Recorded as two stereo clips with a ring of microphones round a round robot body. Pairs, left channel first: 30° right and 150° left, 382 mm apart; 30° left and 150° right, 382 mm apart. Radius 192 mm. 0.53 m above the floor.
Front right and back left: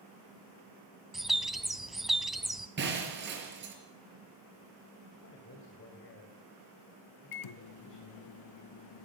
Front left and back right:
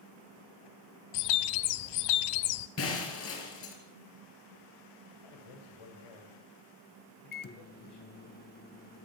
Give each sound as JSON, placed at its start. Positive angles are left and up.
{"t": 1.1, "sound": "a bird", "azimuth_deg": 60, "distance_m": 0.9}
{"t": 2.8, "sound": "breaking glass", "azimuth_deg": 85, "distance_m": 4.5}
{"t": 5.1, "sound": "a man speaking", "azimuth_deg": 25, "distance_m": 3.5}
{"t": 7.3, "sound": "a microwave", "azimuth_deg": -30, "distance_m": 0.7}